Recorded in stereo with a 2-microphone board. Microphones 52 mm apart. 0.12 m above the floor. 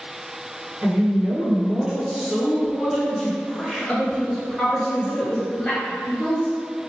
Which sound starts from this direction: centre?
A woman speaking, at 0.8 s.